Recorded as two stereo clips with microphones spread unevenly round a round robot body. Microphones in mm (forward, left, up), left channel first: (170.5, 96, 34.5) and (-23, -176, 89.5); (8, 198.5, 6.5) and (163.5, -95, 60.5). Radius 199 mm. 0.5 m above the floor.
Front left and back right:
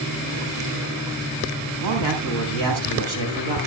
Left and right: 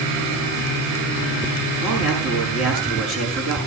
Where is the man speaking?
120° right, 5.5 m.